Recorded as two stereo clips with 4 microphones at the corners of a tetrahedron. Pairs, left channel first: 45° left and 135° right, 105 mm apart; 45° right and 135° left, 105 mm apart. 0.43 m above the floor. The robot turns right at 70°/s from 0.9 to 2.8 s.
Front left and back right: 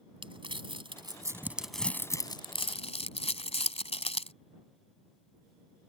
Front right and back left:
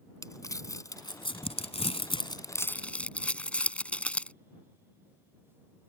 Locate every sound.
0.2 s crumpling: 100° right; by 4.3 s 35° left